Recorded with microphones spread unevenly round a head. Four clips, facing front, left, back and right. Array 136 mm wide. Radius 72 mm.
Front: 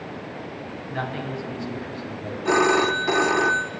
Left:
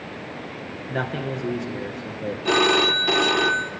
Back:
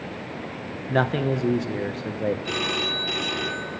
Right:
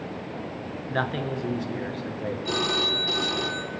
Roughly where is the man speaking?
Behind.